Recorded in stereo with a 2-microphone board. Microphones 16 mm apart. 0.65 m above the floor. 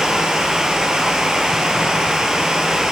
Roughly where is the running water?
Right.